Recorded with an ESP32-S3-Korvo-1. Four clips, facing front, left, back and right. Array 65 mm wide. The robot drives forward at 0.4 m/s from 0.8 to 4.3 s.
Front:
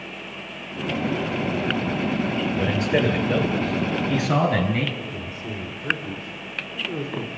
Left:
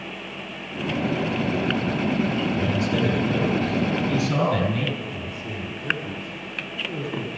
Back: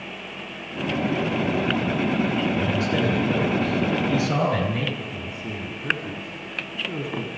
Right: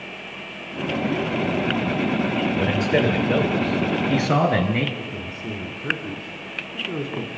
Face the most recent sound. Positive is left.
turn(degrees=-105)